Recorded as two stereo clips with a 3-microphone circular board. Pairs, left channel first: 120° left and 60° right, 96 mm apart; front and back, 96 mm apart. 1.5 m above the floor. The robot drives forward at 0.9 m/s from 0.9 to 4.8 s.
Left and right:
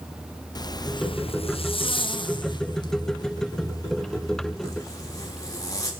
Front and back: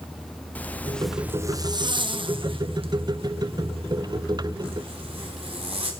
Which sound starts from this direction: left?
A zipper, at 0.6 s.